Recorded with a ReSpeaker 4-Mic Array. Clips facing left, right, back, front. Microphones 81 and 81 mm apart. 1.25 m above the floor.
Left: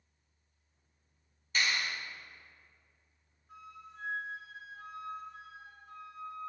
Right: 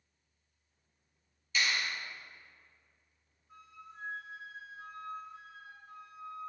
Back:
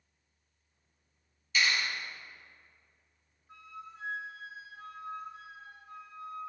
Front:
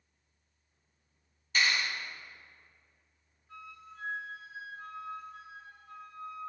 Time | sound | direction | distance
1.6 | a clap | 45° left | 1.9 m
3.5 | a flute | 105° left | 1.6 m